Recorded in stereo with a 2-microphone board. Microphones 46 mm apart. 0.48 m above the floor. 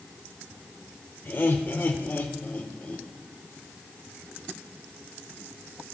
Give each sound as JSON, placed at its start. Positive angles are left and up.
{"t": 1.2, "sound": "laughter", "side_deg": 45, "distance_m": 1.7}